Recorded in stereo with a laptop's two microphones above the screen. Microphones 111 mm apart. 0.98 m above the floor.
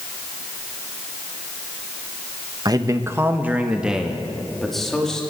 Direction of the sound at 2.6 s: 35° right (ahead or behind).